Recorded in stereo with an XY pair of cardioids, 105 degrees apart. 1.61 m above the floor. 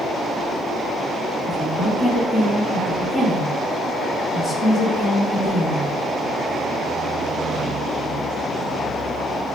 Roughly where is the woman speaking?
Ahead.